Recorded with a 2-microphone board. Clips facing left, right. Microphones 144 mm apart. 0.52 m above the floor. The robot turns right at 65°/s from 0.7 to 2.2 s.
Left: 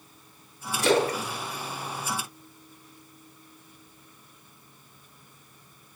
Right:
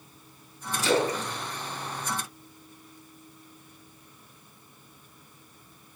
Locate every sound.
0.8 s a splash: 60° left (ahead or behind), 1.4 m; by 3.0 s 10° left (ahead or behind), 1.4 m